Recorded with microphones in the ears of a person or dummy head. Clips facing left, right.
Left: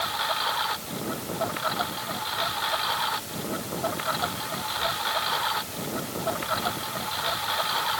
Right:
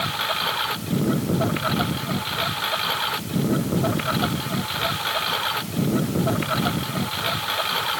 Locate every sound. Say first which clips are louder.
0.0 s a lawn mower: right 2 dB; 35° right (ahead or behind)